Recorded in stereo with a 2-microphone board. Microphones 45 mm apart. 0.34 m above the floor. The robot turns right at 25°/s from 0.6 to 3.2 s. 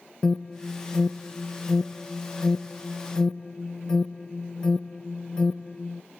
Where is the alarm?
15° left (ahead or behind), 0.7 m.